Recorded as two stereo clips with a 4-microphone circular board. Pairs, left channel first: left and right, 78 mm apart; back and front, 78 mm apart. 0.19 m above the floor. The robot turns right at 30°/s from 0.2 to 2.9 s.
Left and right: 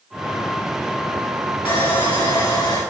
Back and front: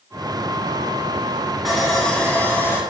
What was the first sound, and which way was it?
Sawing, 90° left.